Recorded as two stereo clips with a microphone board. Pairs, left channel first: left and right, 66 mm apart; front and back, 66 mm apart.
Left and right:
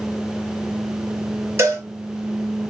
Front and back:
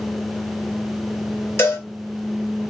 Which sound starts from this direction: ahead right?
A cowbell, at 1.6 s.